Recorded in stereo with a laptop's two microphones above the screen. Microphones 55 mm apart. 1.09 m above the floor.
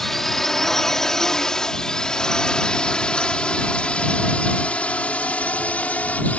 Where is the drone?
5° left (ahead or behind); by 6.4 s 30° left (ahead or behind).